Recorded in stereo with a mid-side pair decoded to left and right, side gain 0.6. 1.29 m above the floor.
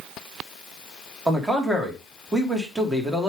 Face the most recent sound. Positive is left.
turn(degrees=-5)